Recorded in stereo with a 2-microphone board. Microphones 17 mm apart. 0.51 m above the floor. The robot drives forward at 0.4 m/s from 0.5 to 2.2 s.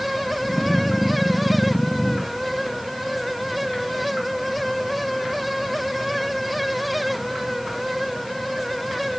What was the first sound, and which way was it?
Only background noise.